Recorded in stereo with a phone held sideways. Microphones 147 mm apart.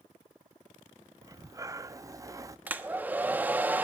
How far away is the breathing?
About 0.7 m.